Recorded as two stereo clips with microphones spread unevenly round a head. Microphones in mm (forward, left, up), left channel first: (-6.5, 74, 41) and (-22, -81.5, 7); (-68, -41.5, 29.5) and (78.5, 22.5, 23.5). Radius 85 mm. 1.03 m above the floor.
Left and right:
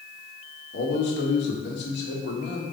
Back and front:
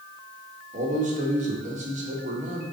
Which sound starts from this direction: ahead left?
A man speaking, at 0.7 s.